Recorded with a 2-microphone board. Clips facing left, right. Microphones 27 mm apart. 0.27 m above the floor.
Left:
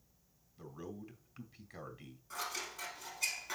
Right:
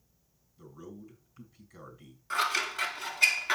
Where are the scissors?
75° right (ahead or behind), 0.6 m.